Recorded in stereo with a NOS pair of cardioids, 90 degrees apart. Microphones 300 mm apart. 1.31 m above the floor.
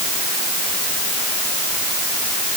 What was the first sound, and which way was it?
Only background noise.